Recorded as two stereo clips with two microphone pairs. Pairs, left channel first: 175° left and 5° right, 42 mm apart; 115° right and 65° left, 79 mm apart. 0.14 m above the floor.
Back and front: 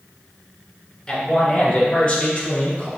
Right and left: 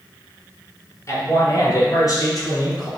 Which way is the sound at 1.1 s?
125° right.